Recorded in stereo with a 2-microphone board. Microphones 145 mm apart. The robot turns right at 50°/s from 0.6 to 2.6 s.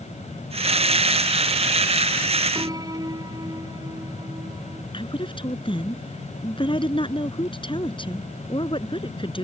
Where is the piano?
30° right (ahead or behind); by 4.8 s 25° right (ahead or behind).